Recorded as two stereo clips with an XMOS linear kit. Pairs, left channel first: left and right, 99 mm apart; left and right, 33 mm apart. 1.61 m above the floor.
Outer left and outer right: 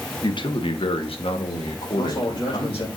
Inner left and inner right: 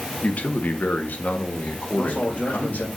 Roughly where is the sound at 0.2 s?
Left.